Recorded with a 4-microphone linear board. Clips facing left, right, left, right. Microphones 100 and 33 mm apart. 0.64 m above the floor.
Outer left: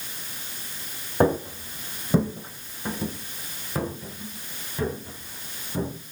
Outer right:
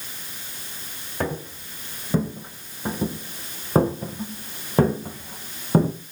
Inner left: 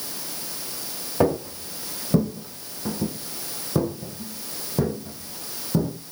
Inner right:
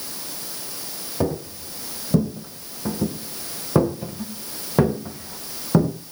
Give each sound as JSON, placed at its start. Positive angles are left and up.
{"t": 1.2, "sound": "footsteps", "side_deg": 30, "distance_m": 3.0}